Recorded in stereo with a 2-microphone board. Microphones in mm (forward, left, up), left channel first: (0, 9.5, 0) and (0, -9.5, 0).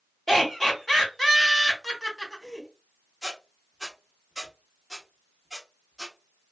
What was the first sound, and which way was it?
Laughter, 10° left (ahead or behind).